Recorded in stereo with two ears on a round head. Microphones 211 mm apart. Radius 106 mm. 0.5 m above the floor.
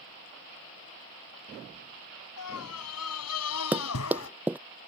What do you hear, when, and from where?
2.4 s a scream: 75° left (ahead or behind); by 4.3 s 60° left (ahead or behind)
3.7 s running footsteps: 5° right (ahead or behind)